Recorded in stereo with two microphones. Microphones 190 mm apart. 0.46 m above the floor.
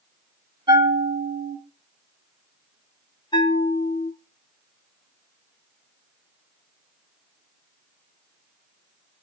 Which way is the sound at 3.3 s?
20° left (ahead or behind).